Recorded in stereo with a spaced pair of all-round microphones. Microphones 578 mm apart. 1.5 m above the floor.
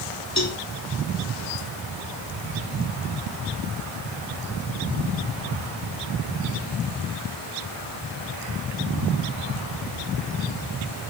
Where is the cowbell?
30° left (ahead or behind), 1.3 m.